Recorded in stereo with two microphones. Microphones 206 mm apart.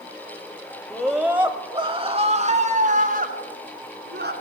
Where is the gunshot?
I don't hear a gunshot.